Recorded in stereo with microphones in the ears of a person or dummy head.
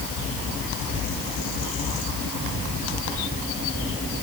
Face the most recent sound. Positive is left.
No sound to turn to.